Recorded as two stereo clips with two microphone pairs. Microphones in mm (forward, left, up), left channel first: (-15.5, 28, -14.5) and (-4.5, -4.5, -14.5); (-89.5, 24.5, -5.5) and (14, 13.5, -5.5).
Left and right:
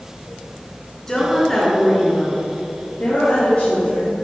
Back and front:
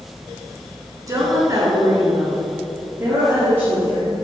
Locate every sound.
1.1 s a woman speaking: 35° left, 2 m; by 4.2 s 65° left, 5 m